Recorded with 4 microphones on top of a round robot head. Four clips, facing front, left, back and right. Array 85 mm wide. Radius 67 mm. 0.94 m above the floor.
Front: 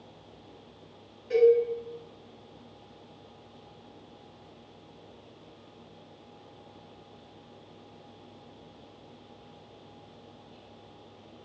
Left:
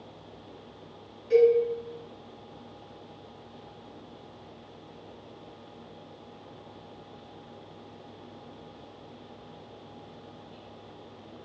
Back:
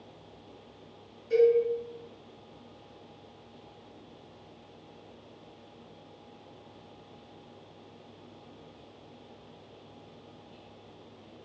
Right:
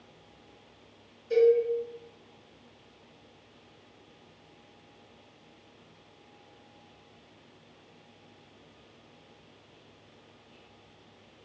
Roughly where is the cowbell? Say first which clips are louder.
Left 2 dB, front 2 dB; ahead left.